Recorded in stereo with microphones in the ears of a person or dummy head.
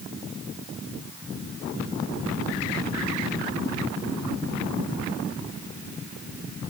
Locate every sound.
Only background noise.